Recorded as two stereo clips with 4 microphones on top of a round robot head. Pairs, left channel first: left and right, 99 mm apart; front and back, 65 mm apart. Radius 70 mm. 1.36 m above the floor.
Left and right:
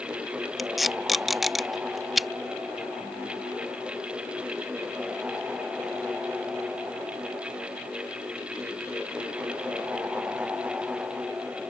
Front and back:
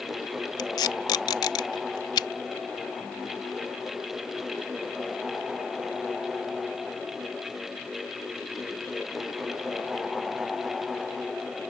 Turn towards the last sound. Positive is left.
turn(degrees=0)